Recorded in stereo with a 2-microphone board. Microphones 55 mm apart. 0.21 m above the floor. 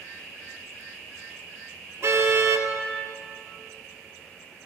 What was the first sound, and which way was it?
A car horn, 60° right (ahead or behind).